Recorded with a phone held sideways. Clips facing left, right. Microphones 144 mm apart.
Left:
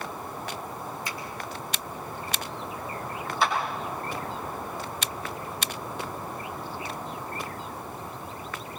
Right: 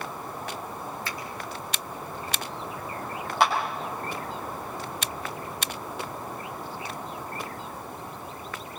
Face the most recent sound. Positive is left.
turn(degrees=-85)